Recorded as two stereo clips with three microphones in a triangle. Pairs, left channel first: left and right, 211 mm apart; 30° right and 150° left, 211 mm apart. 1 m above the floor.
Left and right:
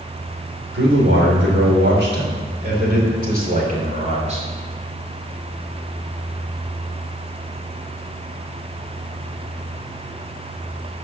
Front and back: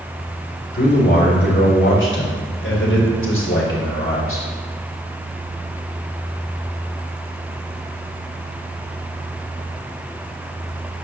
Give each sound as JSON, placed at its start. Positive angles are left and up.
{"t": 0.7, "sound": "a man speaking", "azimuth_deg": -70, "distance_m": 3.5}